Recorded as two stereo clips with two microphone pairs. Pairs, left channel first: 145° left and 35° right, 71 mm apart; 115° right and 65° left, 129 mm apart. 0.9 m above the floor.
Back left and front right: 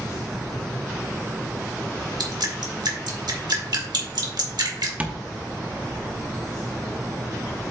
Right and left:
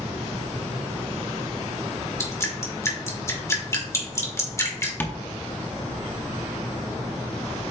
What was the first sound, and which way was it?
Dripping, 45° right.